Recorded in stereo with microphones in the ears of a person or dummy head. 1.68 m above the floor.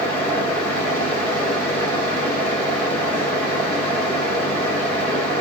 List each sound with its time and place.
0.0 s a fan: 15° left (ahead or behind), 0.9 m